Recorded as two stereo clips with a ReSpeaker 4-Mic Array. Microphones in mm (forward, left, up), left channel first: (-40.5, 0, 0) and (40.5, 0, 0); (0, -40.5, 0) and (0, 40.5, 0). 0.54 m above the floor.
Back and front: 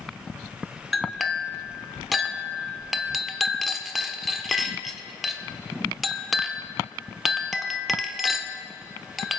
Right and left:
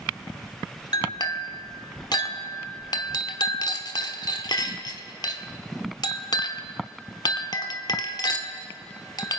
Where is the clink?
90° right, 1.0 m.